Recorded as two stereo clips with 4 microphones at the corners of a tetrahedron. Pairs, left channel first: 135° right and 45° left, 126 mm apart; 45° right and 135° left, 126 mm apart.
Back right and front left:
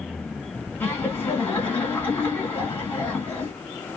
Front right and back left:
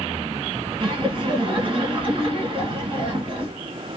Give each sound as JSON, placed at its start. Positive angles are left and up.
{"t": 0.8, "sound": "laughter", "azimuth_deg": 155, "distance_m": 2.0}